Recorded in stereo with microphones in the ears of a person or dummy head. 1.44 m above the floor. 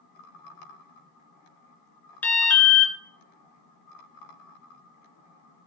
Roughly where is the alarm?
Centre.